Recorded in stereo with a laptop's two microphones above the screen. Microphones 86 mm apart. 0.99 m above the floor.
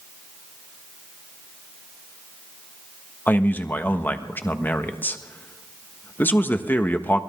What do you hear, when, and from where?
3.3 s a man speaking: 20° left (ahead or behind), 1.3 m